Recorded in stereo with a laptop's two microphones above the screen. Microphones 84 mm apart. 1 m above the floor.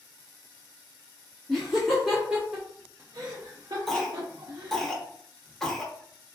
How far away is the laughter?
About 1.0 m.